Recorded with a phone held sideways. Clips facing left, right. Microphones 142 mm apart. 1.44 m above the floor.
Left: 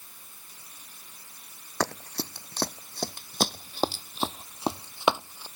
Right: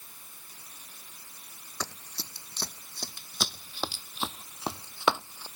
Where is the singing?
I don't hear singing.